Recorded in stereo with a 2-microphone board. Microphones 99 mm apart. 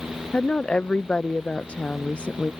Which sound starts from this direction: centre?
A woman speaking, at 0.3 s.